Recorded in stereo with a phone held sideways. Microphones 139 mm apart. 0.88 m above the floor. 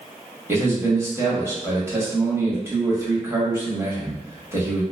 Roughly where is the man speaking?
Centre.